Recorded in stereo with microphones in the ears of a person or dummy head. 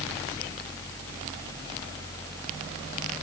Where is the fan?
10° left (ahead or behind).